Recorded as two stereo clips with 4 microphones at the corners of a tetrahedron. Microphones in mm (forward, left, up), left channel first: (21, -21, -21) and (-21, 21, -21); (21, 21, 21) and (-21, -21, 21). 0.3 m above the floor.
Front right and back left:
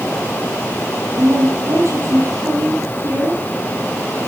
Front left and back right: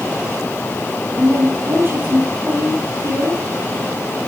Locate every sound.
1.2 s a woman speaking: 175° left, 10 m